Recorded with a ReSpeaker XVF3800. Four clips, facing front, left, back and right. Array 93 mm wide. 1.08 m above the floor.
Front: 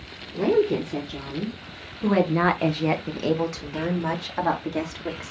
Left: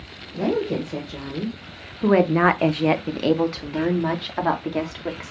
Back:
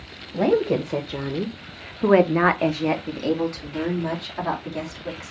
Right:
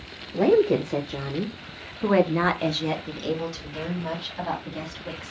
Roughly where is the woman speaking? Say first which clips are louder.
Right 4 dB, back 1 dB; behind right.